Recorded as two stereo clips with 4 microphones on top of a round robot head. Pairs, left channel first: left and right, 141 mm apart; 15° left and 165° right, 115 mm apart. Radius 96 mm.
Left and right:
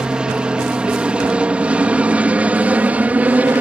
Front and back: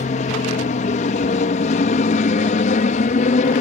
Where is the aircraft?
5° right; by 3.6 s 10° right.